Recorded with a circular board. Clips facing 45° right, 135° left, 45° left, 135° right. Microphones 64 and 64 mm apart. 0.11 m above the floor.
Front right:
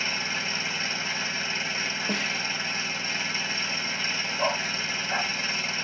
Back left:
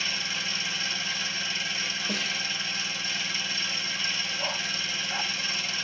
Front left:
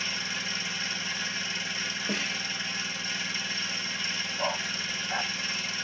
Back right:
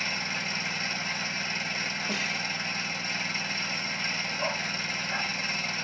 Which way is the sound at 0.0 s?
95° right.